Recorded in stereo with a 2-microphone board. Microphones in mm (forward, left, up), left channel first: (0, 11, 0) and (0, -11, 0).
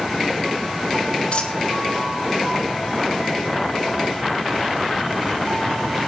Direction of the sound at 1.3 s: 55° left (ahead or behind).